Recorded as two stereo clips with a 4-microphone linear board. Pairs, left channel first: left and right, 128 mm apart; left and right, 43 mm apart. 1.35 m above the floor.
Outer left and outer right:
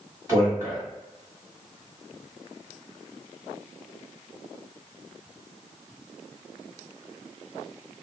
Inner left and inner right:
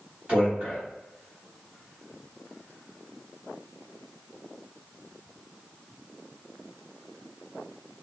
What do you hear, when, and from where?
0.3 s a man speaking: 25° right (ahead or behind), 1.6 m